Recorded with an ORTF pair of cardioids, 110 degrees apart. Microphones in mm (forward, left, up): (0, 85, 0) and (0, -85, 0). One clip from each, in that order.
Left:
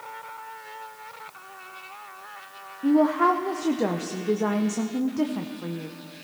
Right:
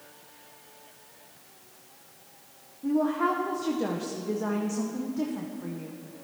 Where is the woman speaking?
30° left, 0.7 m.